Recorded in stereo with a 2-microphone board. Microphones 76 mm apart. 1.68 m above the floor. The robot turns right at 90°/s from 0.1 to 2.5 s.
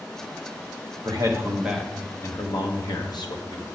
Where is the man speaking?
65° right, 1.2 m; by 3.6 s 65° left, 1.2 m.